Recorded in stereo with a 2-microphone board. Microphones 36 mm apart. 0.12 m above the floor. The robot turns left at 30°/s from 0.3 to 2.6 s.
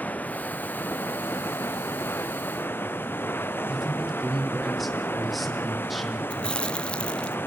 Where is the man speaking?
5° right (ahead or behind), 4 m.